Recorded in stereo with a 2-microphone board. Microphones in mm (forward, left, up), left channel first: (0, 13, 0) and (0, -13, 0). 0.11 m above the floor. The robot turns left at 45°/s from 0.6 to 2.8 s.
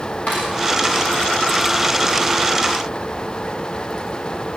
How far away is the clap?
About 9.5 m.